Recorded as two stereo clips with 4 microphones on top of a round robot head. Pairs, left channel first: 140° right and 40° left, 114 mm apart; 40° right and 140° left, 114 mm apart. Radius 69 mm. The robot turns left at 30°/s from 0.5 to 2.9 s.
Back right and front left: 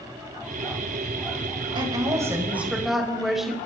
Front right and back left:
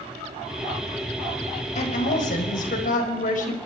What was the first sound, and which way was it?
A woman speaking, 15° right.